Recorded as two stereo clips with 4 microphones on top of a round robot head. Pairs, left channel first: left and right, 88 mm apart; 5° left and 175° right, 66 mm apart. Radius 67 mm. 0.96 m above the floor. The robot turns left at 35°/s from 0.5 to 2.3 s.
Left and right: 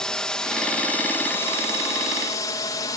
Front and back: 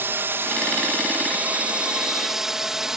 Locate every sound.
0.0 s a drone: 165° left; by 3.0 s 105° left